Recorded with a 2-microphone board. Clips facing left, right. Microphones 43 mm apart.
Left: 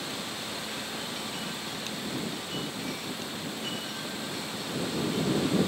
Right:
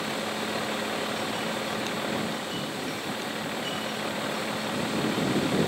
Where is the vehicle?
45° right (ahead or behind).